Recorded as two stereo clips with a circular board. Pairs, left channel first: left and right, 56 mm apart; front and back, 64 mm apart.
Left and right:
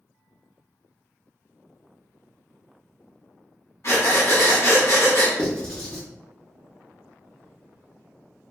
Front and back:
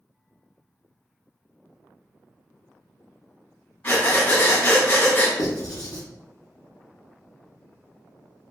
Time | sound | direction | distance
3.8 | breathing | 55° left | 0.9 m
5.4 | writing | 10° left | 0.7 m